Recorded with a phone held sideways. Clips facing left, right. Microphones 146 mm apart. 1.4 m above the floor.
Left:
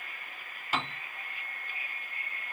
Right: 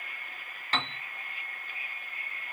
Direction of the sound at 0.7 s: 10° left (ahead or behind).